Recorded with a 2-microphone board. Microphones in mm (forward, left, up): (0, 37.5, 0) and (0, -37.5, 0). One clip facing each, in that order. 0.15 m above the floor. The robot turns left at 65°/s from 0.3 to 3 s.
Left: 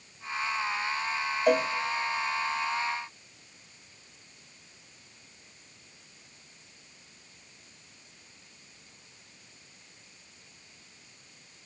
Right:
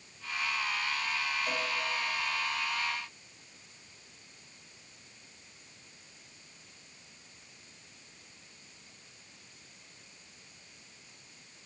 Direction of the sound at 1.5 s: 65° left (ahead or behind).